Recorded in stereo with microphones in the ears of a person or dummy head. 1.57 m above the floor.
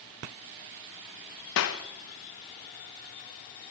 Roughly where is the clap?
Left.